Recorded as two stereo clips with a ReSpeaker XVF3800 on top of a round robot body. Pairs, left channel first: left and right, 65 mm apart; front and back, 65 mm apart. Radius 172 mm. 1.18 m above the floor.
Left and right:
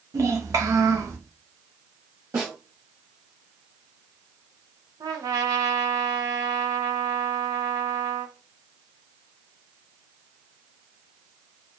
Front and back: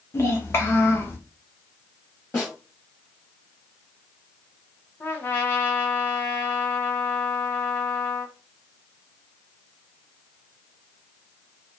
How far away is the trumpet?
About 0.5 m.